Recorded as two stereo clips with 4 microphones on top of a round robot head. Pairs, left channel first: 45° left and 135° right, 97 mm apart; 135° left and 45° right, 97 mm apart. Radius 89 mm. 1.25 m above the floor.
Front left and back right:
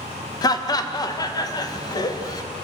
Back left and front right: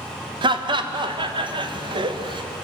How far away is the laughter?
About 1.4 m.